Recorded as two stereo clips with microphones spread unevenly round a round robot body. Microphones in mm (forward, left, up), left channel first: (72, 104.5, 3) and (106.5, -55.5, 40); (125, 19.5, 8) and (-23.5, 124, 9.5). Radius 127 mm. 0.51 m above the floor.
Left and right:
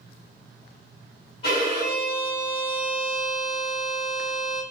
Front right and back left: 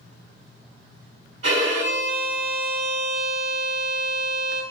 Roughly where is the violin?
Behind.